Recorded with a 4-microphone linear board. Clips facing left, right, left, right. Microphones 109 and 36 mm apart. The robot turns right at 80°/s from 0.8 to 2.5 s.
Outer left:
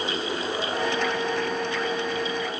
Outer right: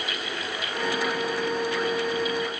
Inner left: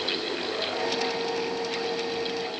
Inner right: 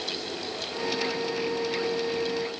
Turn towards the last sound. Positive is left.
No sound to turn to.